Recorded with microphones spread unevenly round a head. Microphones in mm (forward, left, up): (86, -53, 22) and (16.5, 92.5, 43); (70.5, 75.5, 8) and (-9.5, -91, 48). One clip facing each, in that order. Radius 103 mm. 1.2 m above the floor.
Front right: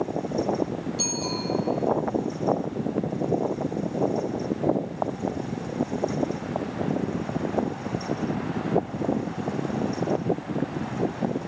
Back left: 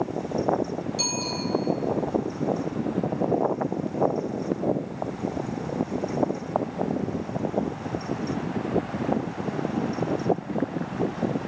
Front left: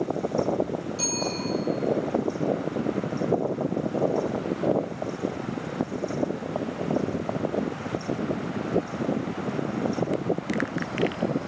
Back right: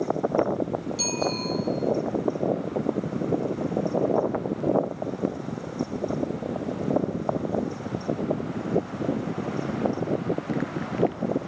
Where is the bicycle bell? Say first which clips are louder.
Even, back right 2 dB; 165° left, 8.5 m.